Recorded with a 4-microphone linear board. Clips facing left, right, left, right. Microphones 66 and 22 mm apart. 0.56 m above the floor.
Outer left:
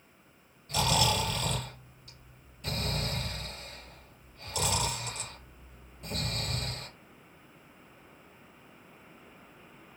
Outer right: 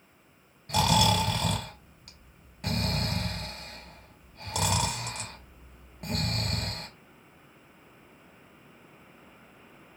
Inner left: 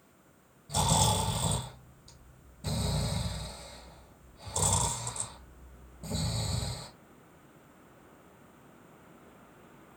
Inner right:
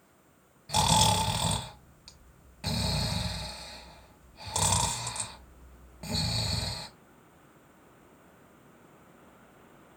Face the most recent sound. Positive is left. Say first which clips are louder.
# outer right 4 dB, inner right 4 dB
turn(degrees=-80)